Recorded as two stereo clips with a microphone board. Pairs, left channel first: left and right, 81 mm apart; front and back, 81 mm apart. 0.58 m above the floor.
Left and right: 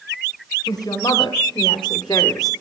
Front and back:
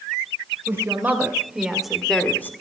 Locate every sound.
0.7 s a woman speaking: 120° left, 2.5 m; by 2.5 s 60° left, 1.2 m